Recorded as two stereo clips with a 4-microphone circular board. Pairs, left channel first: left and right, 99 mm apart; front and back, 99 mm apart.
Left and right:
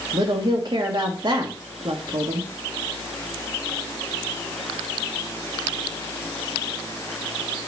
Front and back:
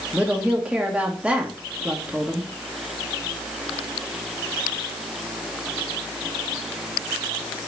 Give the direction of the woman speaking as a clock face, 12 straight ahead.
3 o'clock.